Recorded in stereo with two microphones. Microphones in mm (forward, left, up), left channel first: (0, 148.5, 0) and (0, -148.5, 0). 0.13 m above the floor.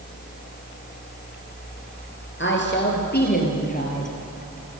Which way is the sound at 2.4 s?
40° left (ahead or behind).